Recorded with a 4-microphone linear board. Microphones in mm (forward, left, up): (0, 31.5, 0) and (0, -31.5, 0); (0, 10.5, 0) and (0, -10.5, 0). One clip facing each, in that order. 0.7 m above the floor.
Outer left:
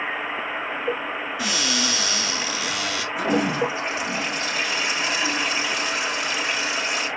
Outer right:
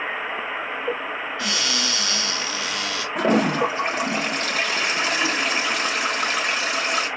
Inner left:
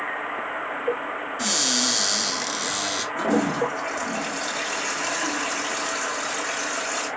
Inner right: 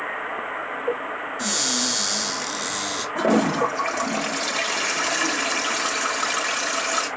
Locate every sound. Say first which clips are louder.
1.4 s a cupboard door: outer left 2 dB, inner left 2 dB; 15° left (ahead or behind), 2.5 m
3.1 s a toilet flushing: outer right 3 dB, inner right 4 dB; 50° right (ahead or behind), 1.5 m